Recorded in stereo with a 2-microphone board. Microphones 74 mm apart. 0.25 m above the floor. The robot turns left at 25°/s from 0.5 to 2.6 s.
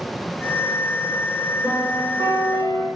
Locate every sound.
1.6 s a piano: 50° right (ahead or behind), 9 m; by 2.9 s 70° right (ahead or behind), 9 m